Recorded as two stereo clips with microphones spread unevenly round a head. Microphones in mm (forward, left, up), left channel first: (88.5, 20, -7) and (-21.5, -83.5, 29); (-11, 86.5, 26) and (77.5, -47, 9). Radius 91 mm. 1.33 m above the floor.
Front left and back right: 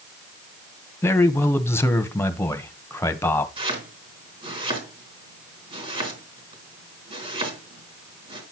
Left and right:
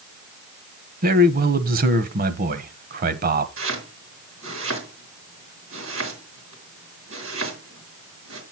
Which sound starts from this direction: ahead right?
A man speaking, at 1.0 s.